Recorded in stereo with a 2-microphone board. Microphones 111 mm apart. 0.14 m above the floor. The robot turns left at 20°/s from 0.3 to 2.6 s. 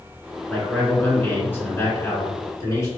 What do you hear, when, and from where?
0.5 s a man speaking: 165° left, 1.6 m; by 2.9 s 120° left, 1.6 m